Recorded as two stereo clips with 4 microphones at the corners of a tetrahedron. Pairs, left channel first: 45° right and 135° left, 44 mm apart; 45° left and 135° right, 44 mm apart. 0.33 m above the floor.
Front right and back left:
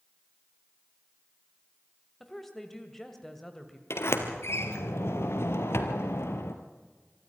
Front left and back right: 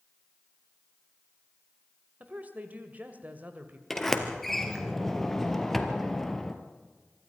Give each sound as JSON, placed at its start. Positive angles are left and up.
{"t": 2.2, "sound": "a woman speaking", "azimuth_deg": -125, "distance_m": 1.8}
{"t": 3.9, "sound": "a sliding door", "azimuth_deg": -40, "distance_m": 1.9}